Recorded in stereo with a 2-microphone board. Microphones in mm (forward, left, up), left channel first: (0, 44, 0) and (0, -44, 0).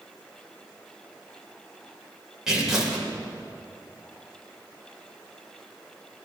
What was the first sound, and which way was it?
Tearing paper, 5° right (ahead or behind).